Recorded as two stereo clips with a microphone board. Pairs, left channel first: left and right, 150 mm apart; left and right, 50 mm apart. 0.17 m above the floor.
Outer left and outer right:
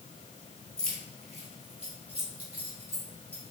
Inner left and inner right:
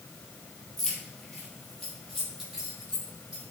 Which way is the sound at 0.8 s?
5° left (ahead or behind).